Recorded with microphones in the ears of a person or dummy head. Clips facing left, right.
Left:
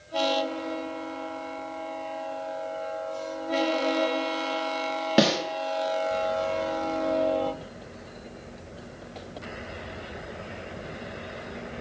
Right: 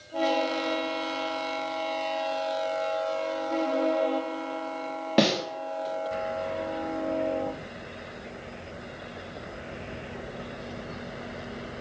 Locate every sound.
5.2 s a snare drum: 5° left (ahead or behind), 1.5 m